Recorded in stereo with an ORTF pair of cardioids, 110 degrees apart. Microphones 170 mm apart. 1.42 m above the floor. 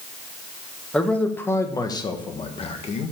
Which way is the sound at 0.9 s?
5° left.